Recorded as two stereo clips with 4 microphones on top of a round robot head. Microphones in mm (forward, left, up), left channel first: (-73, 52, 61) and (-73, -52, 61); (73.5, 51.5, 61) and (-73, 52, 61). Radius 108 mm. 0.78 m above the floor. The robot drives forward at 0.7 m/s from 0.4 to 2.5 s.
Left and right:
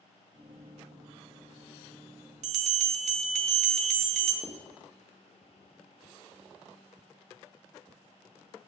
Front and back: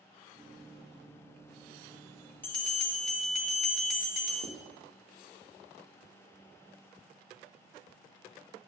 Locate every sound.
2.4 s a bell: 80° right, 0.5 m; by 4.3 s 85° right, 0.5 m
4.4 s writing: 160° left, 1.1 m